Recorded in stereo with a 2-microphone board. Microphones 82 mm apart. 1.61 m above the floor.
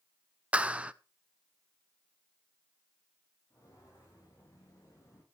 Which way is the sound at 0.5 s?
15° right (ahead or behind).